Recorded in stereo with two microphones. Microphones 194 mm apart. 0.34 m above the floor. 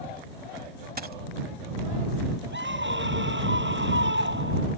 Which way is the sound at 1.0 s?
50° right (ahead or behind).